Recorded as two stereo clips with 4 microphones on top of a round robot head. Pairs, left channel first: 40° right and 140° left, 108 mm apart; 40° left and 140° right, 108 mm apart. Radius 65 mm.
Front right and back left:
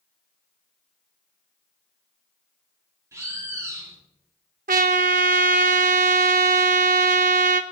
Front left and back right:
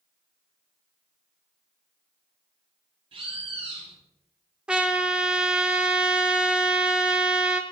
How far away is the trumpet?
About 0.5 m.